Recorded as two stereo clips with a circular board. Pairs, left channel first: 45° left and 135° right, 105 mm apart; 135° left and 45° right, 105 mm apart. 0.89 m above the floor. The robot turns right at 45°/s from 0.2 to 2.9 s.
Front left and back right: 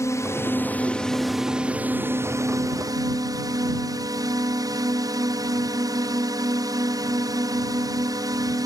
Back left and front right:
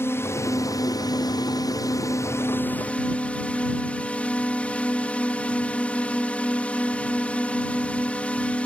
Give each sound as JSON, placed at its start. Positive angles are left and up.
{"t": 0.0, "sound": "a drone", "azimuth_deg": 85}